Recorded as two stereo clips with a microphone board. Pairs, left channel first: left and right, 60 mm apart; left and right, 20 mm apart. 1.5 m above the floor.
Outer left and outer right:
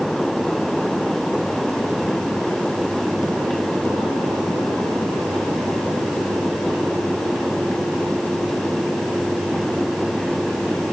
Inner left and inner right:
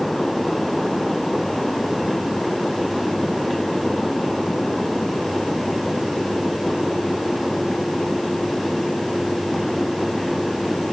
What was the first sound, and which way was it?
Only background noise.